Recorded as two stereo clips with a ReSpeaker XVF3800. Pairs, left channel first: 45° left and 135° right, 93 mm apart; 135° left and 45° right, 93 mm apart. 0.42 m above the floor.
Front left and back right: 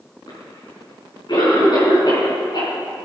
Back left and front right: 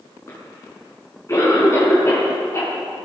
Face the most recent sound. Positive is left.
turn(degrees=80)